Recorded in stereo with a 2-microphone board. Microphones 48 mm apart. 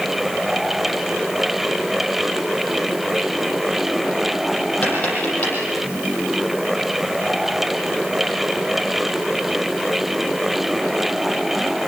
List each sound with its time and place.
4.8 s tapping: 30° left (ahead or behind), 8 m